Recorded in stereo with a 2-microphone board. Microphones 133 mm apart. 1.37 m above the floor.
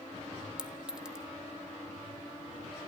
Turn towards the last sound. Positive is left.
turn(degrees=-5)  # may be behind; listen again after turning